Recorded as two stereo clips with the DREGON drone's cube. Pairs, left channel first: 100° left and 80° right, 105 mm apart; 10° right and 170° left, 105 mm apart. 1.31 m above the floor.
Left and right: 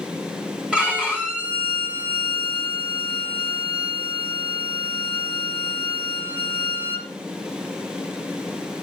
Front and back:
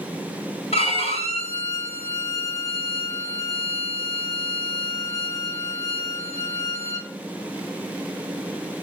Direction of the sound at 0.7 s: Straight ahead.